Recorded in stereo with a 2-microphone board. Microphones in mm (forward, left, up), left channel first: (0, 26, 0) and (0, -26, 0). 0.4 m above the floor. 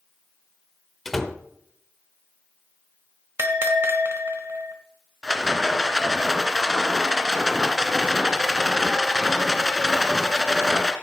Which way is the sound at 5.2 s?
10° right (ahead or behind).